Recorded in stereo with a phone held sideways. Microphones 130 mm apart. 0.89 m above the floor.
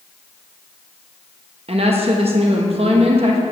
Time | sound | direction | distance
1.7 | a woman speaking | 50° right (ahead or behind) | 0.9 m